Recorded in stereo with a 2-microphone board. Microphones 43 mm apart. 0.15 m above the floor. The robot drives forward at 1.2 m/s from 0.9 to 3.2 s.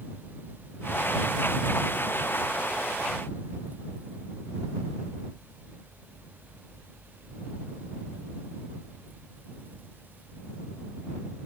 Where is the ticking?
No ticking in this recording.